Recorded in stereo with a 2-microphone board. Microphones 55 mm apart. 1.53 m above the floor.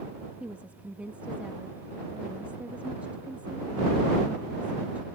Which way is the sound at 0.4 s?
25° right (ahead or behind).